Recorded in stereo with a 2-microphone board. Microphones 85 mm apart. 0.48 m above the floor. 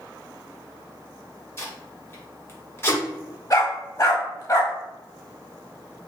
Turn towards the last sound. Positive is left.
turn(degrees=40)  # may be behind; listen again after turning